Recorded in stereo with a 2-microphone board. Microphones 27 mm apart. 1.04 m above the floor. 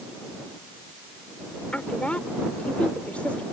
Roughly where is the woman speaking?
Left.